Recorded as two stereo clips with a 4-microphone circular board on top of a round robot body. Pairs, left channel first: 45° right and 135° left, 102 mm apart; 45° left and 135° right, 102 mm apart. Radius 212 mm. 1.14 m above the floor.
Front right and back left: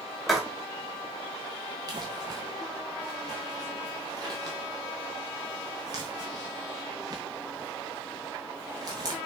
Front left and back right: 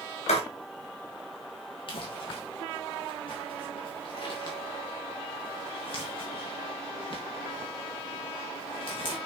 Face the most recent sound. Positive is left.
turn(degrees=85)